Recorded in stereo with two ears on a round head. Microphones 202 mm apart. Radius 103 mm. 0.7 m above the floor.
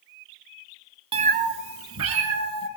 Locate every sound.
1.1 s a cat meowing: 25° right (ahead or behind), 0.6 m; by 2.7 s 75° right (ahead or behind), 2.5 m